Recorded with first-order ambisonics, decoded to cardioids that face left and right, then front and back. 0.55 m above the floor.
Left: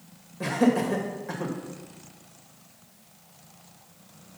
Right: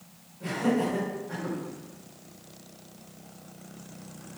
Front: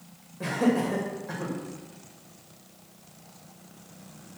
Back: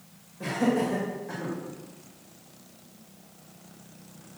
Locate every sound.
0.4 s laughter: 70° left, 2.5 m